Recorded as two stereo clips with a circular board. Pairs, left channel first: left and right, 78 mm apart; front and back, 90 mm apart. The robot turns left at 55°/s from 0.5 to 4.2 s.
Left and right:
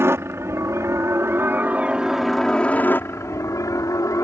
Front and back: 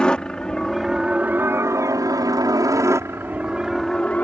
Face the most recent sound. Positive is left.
turn(degrees=70)